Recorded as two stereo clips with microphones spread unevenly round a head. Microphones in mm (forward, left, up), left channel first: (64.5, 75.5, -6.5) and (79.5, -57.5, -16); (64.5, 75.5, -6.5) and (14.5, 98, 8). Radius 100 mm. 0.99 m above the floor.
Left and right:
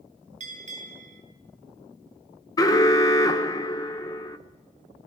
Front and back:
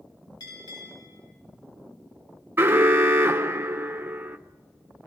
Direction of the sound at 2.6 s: 125° left.